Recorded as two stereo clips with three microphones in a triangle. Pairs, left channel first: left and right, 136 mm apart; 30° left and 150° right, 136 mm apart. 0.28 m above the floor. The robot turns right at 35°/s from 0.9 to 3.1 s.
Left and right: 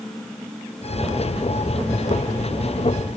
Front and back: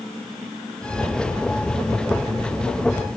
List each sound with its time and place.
Only background noise.